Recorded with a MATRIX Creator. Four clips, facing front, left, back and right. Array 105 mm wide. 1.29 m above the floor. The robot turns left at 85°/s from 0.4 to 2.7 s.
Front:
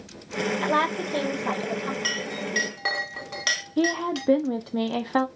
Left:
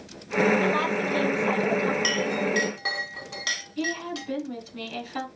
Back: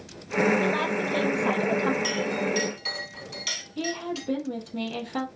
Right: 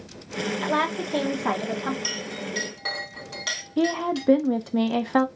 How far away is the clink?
About 1.4 m.